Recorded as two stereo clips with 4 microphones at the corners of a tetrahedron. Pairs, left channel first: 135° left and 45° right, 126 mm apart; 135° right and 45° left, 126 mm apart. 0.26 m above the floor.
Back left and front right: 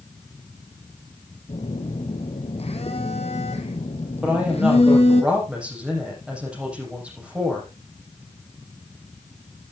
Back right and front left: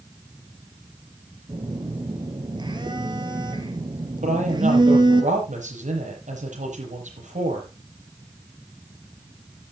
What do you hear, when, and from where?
1.5 s a phone buzzing: 100° left, 2 m
4.2 s a woman speaking: 35° left, 8 m